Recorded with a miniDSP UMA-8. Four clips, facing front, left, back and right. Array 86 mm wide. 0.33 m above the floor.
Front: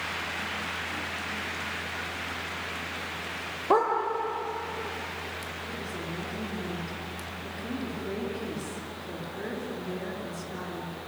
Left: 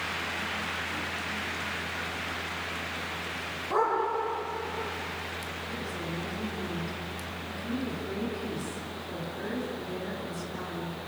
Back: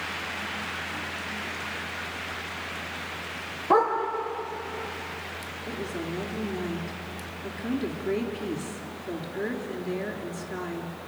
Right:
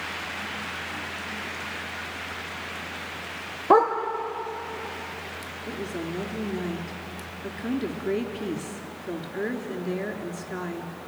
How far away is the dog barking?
About 5.5 m.